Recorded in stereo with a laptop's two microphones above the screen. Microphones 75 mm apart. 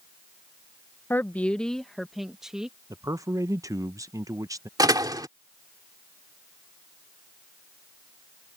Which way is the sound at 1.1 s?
30° left (ahead or behind).